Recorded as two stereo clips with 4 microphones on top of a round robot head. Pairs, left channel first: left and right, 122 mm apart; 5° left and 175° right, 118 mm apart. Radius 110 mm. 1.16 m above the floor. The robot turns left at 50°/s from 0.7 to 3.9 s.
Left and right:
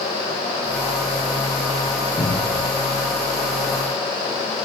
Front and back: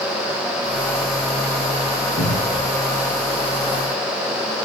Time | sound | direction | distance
2.2 | a cupboard door | 20° left | 7.5 m